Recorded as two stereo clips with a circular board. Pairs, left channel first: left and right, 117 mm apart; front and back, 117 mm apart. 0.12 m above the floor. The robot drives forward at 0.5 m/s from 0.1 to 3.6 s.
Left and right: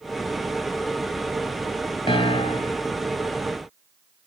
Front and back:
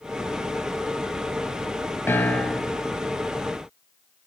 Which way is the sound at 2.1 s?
65° left.